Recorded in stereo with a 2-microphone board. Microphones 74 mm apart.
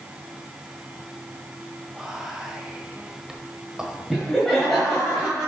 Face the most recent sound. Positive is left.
turn(degrees=0)  # may be behind; listen again after turning